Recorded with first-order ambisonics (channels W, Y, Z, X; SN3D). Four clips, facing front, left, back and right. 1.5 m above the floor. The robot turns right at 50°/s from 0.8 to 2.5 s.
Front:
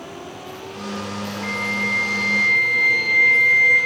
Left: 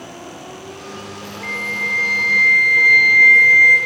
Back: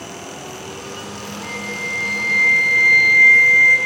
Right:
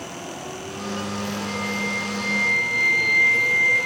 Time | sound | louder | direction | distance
1.4 | a flute | left 8 dB, front 4 dB | 70° left | 5 m